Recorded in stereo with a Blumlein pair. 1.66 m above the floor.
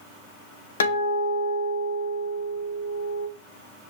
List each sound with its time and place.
0.8 s a guitar: 65° left, 0.8 m